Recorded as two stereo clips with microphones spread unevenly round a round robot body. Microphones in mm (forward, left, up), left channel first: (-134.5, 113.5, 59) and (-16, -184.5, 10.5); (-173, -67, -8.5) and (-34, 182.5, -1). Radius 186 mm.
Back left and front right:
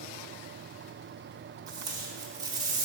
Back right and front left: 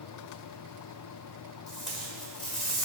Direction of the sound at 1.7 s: 35° right.